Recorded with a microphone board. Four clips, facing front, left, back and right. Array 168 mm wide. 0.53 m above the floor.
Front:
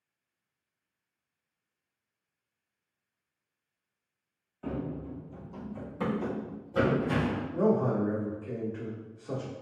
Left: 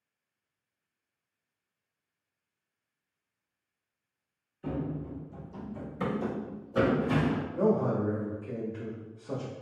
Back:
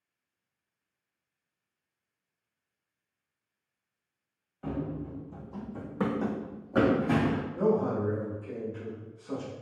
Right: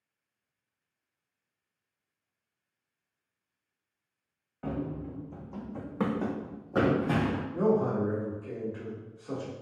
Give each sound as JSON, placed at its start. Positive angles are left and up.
{"t": 4.6, "sound": "running footsteps", "azimuth_deg": -90, "distance_m": 1.7}
{"t": 7.5, "sound": "a man speaking", "azimuth_deg": -45, "distance_m": 1.3}